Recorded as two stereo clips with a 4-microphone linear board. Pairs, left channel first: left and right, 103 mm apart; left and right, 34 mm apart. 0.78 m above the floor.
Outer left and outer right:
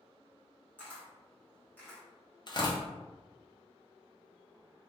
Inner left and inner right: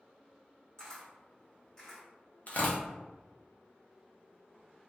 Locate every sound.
0.8 s a camera shutter: 15° left (ahead or behind), 1.7 m
2.5 s tearing paper: 45° left (ahead or behind), 0.8 m